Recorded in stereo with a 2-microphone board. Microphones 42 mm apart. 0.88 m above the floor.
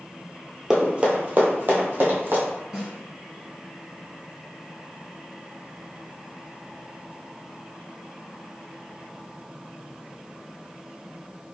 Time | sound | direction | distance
0.7 | running footsteps | 20° right (ahead or behind) | 0.9 m
2.7 | a snare drum | 10° right (ahead or behind) | 1.5 m